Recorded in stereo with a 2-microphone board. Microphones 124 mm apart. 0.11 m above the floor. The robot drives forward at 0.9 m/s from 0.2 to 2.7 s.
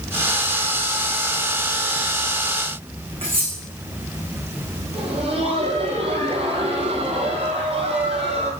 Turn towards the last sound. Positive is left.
turn(degrees=-50)  # may be behind; listen again after turning